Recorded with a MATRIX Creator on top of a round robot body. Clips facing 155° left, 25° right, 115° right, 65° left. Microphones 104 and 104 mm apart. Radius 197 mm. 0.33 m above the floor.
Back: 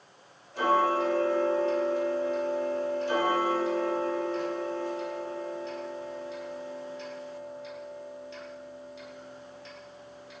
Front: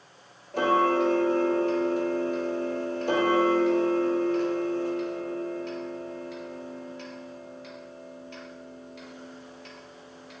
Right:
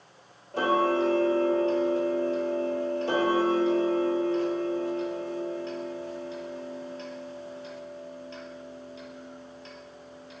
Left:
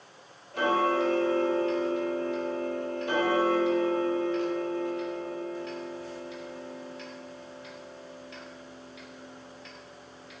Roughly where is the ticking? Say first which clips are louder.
Front 2 dB, right 1 dB; ahead right.